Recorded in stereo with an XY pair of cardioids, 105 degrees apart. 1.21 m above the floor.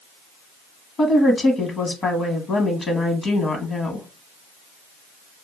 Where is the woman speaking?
45° left, 0.9 m.